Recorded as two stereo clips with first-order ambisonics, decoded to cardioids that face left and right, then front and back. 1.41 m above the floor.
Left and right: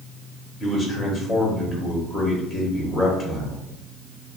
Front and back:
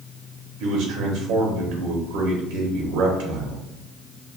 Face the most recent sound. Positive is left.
turn(degrees=180)